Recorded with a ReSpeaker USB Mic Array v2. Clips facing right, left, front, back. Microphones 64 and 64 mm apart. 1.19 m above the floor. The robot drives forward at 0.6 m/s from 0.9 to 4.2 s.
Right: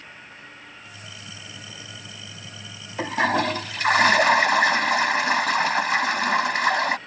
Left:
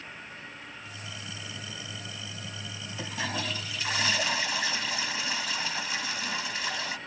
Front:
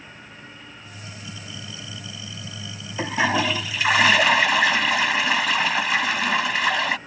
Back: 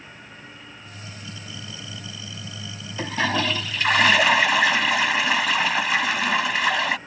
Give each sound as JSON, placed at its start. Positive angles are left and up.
{"t": 3.0, "sound": "a toilet flushing", "azimuth_deg": -70}